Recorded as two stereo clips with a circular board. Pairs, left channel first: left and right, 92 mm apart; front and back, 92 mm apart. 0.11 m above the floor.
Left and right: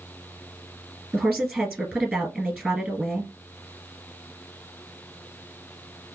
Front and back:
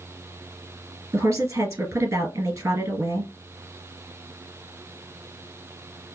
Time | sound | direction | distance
1.1 | a woman speaking | 165° right | 1.6 m